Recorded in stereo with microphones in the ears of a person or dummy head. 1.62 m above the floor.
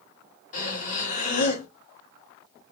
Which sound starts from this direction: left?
Breathing, at 0.5 s.